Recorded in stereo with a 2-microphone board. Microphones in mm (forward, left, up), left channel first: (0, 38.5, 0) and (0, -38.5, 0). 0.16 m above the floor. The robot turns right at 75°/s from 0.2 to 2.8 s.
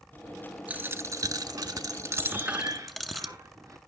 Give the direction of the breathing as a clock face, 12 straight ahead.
5 o'clock.